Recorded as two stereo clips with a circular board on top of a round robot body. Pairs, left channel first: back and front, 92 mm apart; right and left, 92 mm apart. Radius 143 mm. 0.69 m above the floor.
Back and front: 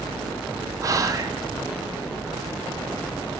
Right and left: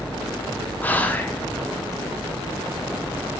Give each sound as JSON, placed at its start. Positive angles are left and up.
{"t": 0.8, "sound": "whispering", "azimuth_deg": -30, "distance_m": 0.5}